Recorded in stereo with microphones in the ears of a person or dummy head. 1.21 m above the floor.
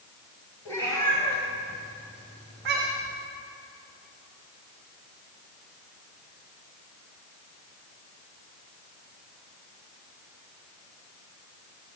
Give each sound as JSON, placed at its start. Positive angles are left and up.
{"t": 0.7, "sound": "a cat meowing", "side_deg": 15, "distance_m": 3.5}